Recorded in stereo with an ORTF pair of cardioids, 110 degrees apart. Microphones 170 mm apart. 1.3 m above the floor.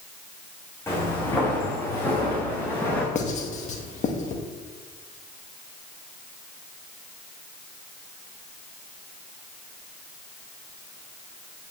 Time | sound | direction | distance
0.9 | footsteps | 15° left | 5 m
3.1 | writing | 45° left | 1.7 m